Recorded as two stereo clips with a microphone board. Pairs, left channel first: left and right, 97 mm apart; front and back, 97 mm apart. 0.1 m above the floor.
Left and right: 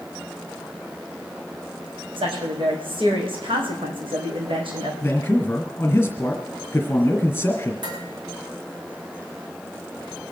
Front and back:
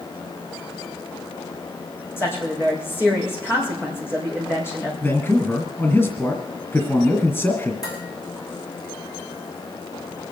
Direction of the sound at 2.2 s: 65° right.